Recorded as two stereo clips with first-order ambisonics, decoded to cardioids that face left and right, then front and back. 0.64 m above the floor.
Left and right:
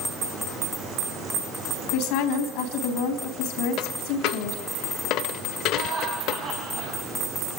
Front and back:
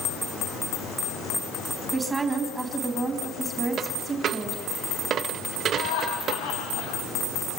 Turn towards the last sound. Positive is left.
turn(degrees=-20)